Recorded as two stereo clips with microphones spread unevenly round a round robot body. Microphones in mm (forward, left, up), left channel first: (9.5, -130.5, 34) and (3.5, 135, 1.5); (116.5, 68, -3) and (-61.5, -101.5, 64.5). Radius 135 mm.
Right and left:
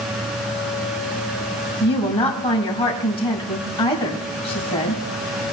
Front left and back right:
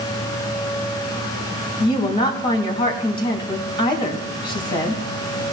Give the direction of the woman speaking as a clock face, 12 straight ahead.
1 o'clock.